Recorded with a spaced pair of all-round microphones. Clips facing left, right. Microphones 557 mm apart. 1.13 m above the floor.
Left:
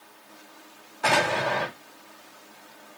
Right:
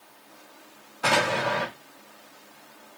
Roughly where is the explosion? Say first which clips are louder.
Even; right.